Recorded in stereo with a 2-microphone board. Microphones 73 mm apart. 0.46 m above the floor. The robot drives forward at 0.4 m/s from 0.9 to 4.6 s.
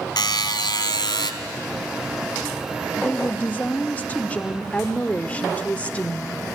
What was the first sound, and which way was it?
A buzzer, 75° left (ahead or behind).